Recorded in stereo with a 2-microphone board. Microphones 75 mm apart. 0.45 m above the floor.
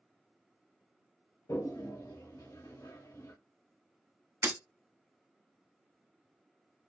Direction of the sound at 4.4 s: 40° right (ahead or behind).